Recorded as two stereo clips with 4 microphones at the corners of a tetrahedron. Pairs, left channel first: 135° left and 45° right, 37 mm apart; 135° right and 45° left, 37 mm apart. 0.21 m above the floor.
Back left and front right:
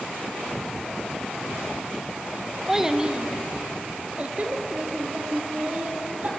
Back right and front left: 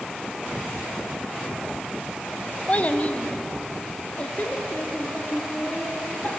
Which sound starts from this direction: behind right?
A child speaking, at 2.7 s.